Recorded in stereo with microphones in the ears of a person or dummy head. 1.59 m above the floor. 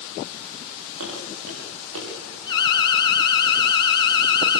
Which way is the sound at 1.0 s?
75° right (ahead or behind).